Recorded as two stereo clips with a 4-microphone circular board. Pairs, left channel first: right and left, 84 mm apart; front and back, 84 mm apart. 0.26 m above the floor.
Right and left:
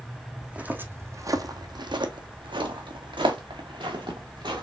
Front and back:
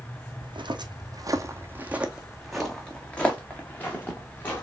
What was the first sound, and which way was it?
Footsteps, 170° left.